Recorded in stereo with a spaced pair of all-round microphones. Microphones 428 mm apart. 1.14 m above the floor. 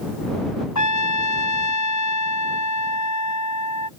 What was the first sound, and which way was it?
A trumpet, 40° left (ahead or behind).